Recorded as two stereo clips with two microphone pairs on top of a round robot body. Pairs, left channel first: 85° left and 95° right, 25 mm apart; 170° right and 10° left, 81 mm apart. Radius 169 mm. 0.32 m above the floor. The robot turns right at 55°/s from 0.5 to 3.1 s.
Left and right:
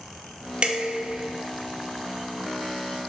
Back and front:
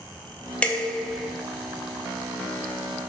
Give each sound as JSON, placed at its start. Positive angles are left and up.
{"t": 0.6, "sound": "dishes clattering", "azimuth_deg": -115, "distance_m": 0.5}